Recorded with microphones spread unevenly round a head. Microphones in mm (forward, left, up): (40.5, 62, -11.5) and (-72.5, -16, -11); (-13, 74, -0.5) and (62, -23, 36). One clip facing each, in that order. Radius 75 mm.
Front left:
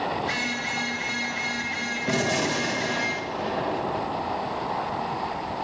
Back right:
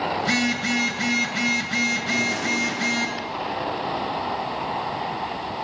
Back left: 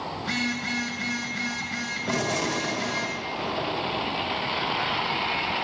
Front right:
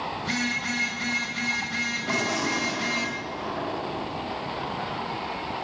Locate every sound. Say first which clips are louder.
0.2 s a phone buzzing: back right 6 dB, even; 140° right, 3 m
2.1 s a gunshot: front left 1 dB, back left 1 dB; 55° left, 2.5 m